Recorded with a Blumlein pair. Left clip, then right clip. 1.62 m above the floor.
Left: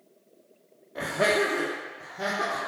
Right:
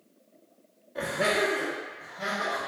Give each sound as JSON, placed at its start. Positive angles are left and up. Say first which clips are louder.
{"t": 0.9, "sound": "laughter", "louder": "left 2 dB", "azimuth_deg": 10, "distance_m": 0.7}